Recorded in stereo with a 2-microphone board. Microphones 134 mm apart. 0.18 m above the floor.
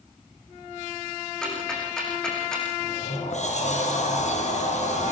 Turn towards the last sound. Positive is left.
turn(degrees=60)  # may be behind; listen again after turning